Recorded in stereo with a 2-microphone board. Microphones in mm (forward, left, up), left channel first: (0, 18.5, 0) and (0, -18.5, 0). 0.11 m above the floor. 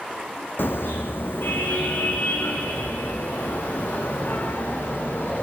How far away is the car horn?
About 3.5 m.